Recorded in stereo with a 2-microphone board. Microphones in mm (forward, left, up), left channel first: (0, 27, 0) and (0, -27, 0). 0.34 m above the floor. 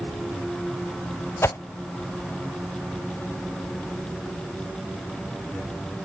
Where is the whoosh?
55° left (ahead or behind), 0.5 m.